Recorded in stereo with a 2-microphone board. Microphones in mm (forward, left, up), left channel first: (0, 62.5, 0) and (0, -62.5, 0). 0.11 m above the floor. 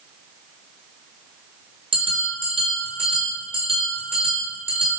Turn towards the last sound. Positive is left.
turn(degrees=-45)  # may be behind; listen again after turning